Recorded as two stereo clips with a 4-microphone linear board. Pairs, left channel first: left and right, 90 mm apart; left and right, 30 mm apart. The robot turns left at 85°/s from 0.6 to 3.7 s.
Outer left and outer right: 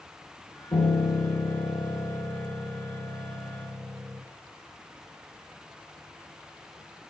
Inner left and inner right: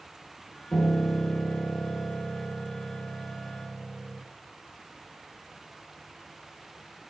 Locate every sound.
0.7 s a piano: 125° left, 1.6 m; by 4.2 s 130° right, 1.6 m